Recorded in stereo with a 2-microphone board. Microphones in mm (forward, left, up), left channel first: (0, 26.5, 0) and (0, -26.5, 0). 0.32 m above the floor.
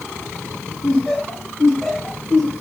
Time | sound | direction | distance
0.8 | laughter | centre (ahead or behind) | 2 m